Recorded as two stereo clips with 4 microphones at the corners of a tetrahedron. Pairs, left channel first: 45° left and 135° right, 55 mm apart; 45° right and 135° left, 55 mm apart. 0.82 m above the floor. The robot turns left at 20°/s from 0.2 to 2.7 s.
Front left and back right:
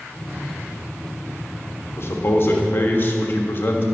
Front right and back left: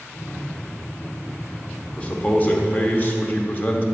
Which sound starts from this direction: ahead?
A man speaking, at 2.0 s.